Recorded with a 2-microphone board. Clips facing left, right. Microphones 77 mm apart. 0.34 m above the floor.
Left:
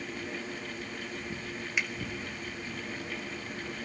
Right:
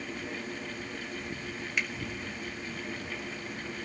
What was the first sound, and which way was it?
A finger snap, 5° left (ahead or behind).